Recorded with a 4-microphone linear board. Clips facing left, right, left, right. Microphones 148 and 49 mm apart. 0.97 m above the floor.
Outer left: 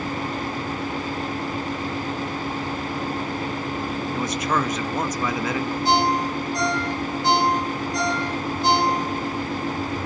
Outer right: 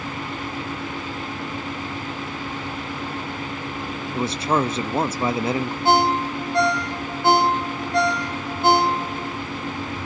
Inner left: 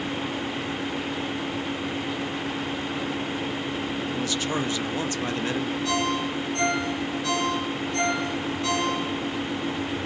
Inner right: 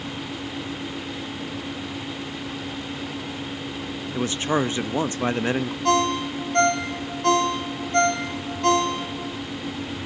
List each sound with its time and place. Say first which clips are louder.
4.1 s a man speaking: outer right 4 dB, inner right 7 dB; 30° right (ahead or behind), 0.9 m
5.8 s a ringtone: outer right 3 dB, inner right 7 dB; 55° right (ahead or behind), 3 m